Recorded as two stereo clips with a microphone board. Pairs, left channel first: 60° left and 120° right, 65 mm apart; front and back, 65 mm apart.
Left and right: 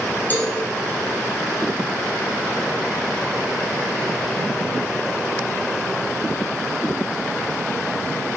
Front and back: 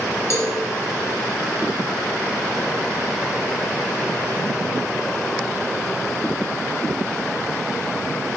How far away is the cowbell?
About 1.7 m.